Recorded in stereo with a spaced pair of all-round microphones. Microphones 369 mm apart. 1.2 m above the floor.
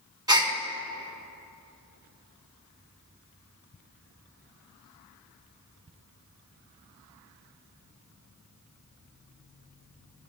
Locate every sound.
0.3 s a gasp: 10° right (ahead or behind), 1.8 m